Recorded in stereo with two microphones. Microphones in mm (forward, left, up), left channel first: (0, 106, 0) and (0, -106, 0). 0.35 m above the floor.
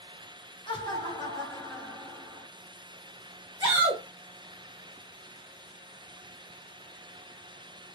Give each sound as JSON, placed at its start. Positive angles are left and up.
{"t": 0.7, "sound": "laughter", "side_deg": 25, "distance_m": 2.0}
{"t": 3.6, "sound": "a shout", "side_deg": -20, "distance_m": 1.0}